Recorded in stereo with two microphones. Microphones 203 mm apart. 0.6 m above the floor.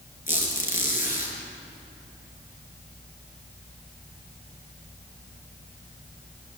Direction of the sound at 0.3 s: 45° left (ahead or behind).